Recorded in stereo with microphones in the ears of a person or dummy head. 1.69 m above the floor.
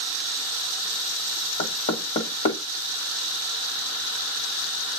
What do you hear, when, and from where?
1.6 s knocking: 40° left (ahead or behind), 1.3 m